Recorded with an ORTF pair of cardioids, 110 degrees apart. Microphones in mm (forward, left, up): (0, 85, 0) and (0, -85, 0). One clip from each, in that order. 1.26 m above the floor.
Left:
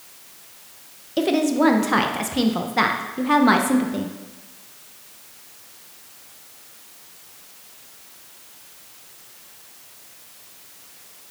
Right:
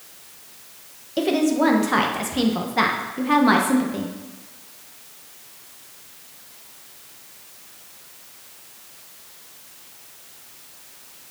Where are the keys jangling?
No keys jangling in this recording.